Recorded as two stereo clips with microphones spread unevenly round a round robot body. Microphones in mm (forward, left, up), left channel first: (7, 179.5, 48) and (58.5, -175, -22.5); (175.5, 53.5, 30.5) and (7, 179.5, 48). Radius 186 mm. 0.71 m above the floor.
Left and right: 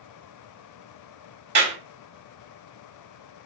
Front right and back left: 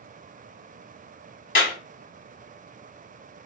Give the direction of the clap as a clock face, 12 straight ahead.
1 o'clock.